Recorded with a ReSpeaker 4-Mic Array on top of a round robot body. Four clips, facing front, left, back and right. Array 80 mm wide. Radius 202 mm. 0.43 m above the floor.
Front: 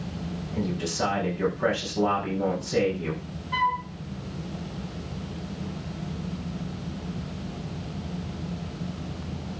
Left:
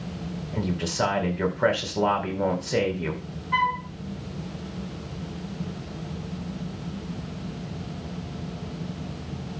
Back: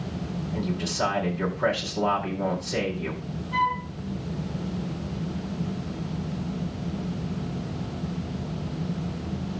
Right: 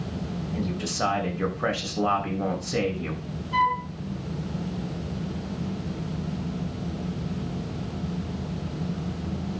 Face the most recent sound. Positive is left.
turn(degrees=70)